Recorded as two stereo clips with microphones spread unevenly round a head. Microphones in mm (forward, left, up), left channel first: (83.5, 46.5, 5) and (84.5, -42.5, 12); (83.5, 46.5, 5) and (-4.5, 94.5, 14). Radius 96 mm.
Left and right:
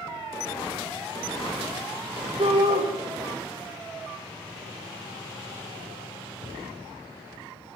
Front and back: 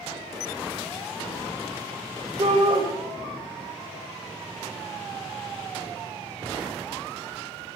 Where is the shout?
145° right, 1.9 m.